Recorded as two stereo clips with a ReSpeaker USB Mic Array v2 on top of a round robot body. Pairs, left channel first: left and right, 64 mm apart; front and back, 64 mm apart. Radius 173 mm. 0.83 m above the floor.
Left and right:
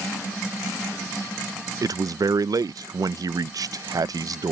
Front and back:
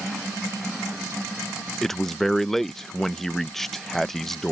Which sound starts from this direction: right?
A man speaking, at 1.8 s.